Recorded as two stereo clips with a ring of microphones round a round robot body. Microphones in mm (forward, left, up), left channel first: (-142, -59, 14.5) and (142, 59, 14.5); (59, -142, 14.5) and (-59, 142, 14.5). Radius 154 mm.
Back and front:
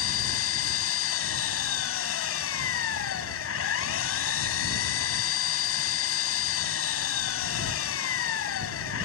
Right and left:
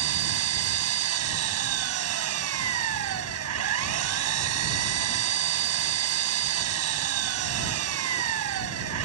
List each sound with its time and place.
0.0 s an engine running: 155° left